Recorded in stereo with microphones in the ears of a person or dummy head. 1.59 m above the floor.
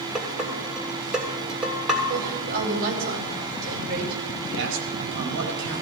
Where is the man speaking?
60° right (ahead or behind), 4.5 m.